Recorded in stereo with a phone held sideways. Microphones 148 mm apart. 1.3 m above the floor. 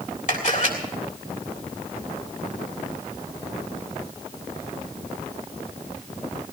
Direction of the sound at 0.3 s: 60° left (ahead or behind).